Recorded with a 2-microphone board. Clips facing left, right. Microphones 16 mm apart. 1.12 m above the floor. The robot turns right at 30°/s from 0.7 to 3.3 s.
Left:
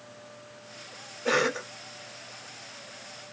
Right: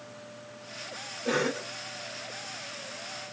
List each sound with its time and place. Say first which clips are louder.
1.2 s a cough: left 3 dB; 65° left (ahead or behind), 1.5 m; by 1.7 s 75° left (ahead or behind), 1.5 m